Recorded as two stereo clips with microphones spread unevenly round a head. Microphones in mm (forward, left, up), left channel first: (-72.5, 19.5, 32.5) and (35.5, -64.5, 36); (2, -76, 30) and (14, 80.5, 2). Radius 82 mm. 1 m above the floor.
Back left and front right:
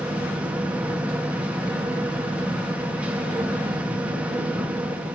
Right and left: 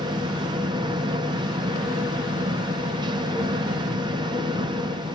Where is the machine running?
40° left, 0.7 m.